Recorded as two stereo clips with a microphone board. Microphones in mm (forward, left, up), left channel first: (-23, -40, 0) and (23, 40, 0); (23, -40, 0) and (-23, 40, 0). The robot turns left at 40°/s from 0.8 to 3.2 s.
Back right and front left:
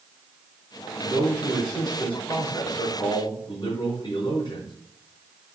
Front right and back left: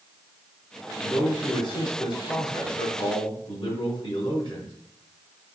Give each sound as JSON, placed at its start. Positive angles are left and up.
{"t": 1.0, "sound": "a man speaking", "azimuth_deg": 0, "distance_m": 4.5}